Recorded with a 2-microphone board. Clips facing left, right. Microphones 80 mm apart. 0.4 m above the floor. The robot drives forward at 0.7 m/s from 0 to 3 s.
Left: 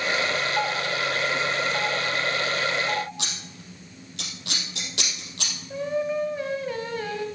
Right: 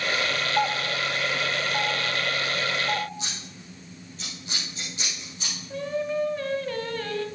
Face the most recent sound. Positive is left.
turn(degrees=15)  # may be behind; listen again after turning